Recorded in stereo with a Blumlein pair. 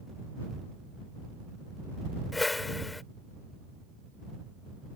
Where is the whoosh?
10° left.